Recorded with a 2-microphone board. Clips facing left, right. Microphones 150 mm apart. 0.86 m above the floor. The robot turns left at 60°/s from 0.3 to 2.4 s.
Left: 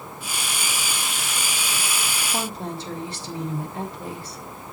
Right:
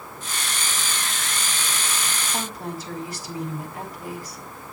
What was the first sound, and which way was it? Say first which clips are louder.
A woman speaking: left 3 dB; 25° left (ahead or behind).